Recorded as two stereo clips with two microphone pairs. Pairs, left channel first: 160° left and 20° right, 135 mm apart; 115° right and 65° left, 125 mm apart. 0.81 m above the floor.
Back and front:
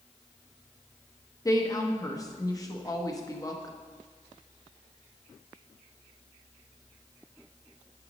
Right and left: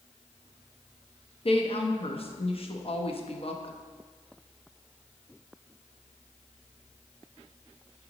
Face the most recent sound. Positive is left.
turn(degrees=-145)